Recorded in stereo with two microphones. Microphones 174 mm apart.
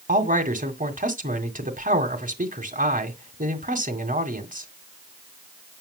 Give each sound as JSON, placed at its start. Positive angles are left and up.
{"t": 0.1, "sound": "a man speaking", "side_deg": -50, "distance_m": 2.0}